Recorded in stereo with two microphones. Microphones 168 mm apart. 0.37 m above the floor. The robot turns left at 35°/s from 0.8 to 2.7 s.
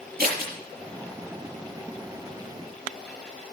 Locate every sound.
0.2 s scissors: 65° right (ahead or behind), 6.5 m